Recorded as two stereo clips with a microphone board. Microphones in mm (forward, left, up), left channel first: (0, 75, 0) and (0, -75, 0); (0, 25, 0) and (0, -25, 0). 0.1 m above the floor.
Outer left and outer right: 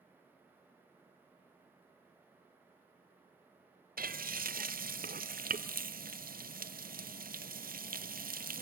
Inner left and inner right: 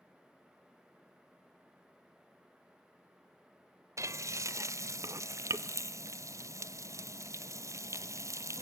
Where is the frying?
65° right (ahead or behind), 0.7 m.